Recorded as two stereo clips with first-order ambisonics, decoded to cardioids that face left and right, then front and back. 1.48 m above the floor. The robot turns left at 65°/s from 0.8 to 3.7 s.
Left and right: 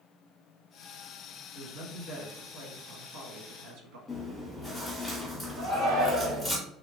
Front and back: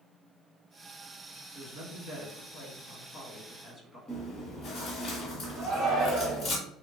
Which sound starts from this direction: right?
A shout, at 5.6 s.